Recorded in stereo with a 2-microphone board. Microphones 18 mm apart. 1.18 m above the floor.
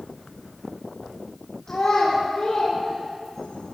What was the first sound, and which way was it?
A child speaking, 45° left (ahead or behind).